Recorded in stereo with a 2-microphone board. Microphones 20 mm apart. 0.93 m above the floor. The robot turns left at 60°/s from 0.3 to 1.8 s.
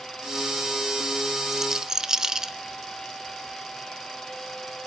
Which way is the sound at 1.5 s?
15° right (ahead or behind).